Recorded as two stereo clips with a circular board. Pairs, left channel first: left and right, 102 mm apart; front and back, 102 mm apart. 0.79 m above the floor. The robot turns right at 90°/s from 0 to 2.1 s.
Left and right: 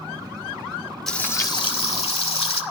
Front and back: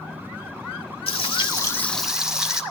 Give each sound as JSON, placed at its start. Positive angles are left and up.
{"t": 1.1, "sound": "frying", "azimuth_deg": 5, "distance_m": 1.9}